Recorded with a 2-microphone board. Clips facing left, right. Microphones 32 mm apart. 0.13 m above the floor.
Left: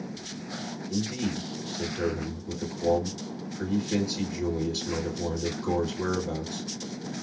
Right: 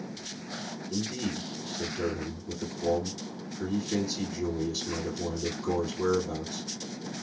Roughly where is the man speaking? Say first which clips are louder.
Left 2 dB; left.